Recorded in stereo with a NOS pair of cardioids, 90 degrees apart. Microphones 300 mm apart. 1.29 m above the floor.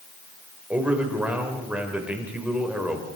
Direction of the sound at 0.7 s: 5° right.